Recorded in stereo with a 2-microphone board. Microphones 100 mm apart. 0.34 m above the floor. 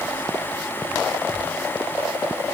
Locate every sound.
Only background noise.